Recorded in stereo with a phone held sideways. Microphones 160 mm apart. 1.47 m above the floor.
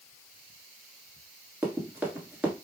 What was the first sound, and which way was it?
Running footsteps, 10° right (ahead or behind).